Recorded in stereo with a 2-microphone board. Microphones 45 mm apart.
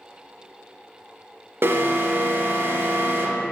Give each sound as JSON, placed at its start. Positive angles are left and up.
{"t": 1.6, "sound": "an alarm", "side_deg": -55, "distance_m": 0.6}